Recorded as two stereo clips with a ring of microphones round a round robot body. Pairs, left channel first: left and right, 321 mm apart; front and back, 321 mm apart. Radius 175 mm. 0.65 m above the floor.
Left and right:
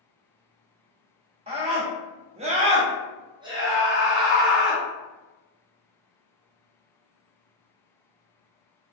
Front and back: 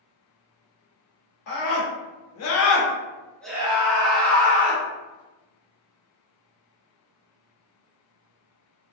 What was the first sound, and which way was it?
A scream, 20° right.